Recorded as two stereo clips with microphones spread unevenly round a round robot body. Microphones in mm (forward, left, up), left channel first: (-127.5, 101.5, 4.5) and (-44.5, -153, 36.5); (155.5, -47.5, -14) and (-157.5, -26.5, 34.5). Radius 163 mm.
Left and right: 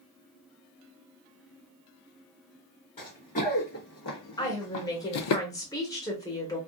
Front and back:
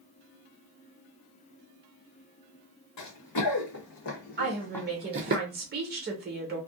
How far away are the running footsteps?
About 1.2 m.